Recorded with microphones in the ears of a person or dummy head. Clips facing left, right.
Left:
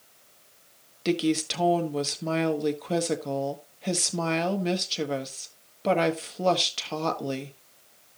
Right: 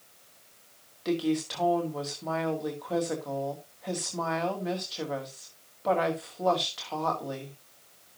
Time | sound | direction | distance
1.1 | a woman speaking | 40° left (ahead or behind) | 1.4 m